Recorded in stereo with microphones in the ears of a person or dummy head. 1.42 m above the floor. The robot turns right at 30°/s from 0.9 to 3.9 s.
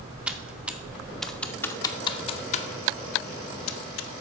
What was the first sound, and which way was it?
Typing on a keyboard, 5° right (ahead or behind).